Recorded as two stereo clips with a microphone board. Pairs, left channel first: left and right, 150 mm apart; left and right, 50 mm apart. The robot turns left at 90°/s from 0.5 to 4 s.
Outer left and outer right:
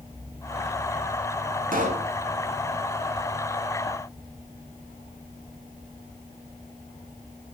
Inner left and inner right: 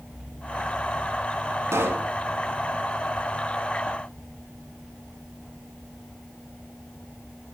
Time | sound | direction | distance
1.7 | a pop | 115° right | 1.0 m